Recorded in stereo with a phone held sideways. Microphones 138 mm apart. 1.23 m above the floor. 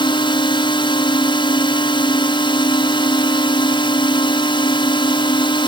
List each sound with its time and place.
0.0 s a drone: 35° left (ahead or behind)